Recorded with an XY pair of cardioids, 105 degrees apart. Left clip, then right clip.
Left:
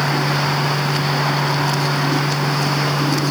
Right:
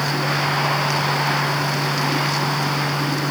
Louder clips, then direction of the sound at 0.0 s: Left 2 dB; 30° left.